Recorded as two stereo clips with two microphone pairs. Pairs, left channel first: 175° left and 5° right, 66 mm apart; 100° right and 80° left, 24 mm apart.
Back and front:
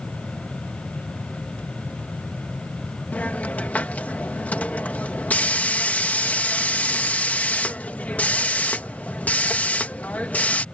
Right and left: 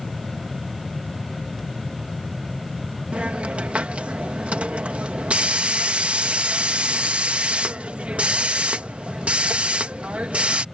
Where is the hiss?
110° left.